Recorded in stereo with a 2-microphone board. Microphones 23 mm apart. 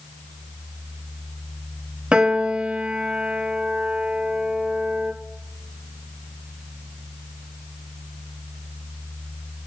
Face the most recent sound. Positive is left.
turn(degrees=-55)  # may be behind; listen again after turning